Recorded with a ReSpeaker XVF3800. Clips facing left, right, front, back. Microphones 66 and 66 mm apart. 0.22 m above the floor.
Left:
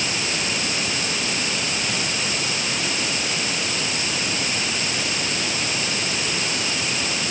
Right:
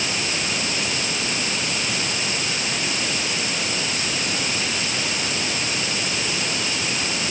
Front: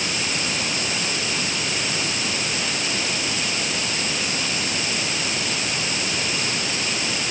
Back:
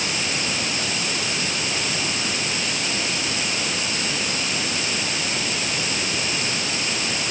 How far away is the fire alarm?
I don't hear a fire alarm.